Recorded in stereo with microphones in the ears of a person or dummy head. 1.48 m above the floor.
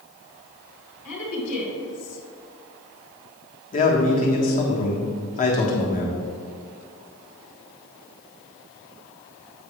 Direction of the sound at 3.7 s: 40° left (ahead or behind).